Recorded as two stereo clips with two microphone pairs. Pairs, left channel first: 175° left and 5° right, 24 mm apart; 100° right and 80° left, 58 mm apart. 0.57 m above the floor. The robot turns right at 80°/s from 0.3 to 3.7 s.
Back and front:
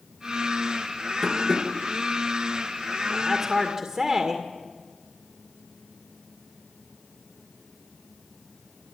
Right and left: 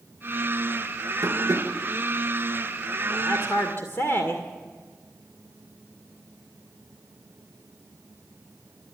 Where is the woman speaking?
115° right, 2 m; by 4.4 s 65° right, 2 m.